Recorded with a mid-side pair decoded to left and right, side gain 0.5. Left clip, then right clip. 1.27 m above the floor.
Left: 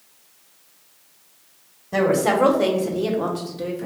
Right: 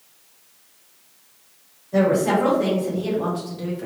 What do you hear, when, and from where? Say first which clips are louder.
1.9 s a woman speaking: even; 65° left, 1.3 m; by 3.9 s 10° left, 1.0 m